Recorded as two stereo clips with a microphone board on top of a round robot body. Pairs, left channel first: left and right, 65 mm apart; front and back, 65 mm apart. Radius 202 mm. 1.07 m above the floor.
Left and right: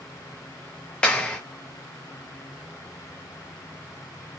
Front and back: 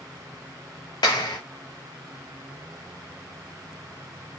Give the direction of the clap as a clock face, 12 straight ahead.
12 o'clock.